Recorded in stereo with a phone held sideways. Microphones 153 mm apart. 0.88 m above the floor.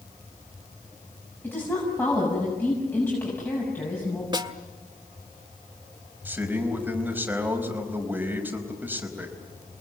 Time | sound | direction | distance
1.4 | a woman speaking | 15° left (ahead or behind) | 7 m
4.3 | a snare drum | 30° right (ahead or behind) | 1.5 m
6.2 | a man speaking | 10° right (ahead or behind) | 4.5 m